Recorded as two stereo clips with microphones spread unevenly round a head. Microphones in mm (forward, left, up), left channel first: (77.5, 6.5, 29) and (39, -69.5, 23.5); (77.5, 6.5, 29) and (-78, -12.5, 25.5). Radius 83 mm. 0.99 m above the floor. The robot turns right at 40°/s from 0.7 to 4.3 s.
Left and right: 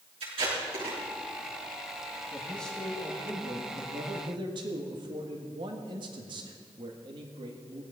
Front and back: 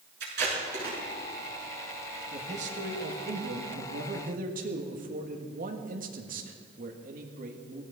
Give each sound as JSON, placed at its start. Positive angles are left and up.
{"t": 0.2, "sound": "tape being pulled", "azimuth_deg": -150, "distance_m": 6.5}
{"t": 2.3, "sound": "a man speaking", "azimuth_deg": 135, "distance_m": 1.7}